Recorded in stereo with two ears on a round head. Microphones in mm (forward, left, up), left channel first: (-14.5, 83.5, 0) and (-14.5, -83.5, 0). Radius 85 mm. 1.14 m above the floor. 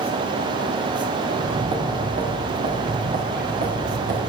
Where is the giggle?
I don't hear a giggle.